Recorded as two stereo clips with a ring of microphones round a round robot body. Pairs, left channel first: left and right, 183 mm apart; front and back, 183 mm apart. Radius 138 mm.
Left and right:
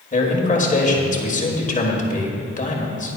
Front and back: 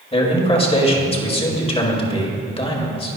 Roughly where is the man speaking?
Ahead left.